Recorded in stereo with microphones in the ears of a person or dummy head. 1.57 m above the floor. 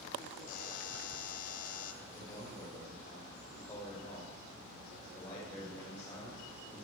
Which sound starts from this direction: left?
A buzzer, at 0.5 s.